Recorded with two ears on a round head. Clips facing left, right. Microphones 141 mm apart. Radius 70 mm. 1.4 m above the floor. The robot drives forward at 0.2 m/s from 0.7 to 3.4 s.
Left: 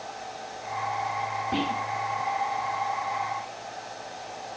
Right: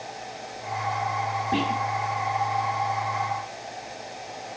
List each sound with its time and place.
1.5 s whispering: 20° right (ahead or behind), 1.5 m